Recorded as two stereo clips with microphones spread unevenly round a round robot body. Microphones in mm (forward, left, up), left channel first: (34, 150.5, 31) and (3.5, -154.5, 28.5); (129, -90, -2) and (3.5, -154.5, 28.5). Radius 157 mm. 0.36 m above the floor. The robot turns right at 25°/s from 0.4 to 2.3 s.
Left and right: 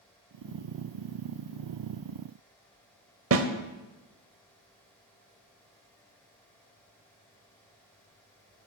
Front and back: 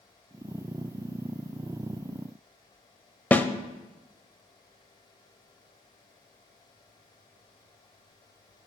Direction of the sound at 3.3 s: 50° right.